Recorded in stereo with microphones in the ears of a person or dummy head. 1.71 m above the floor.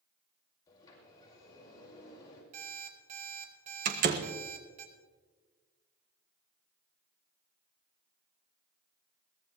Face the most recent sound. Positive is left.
turn(degrees=-45)  # may be behind; listen again after turning